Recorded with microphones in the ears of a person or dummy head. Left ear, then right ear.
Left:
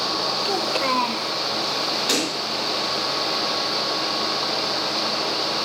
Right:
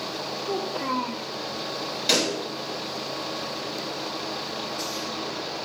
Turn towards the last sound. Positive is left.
turn(degrees=-25)  # may be behind; listen again after turning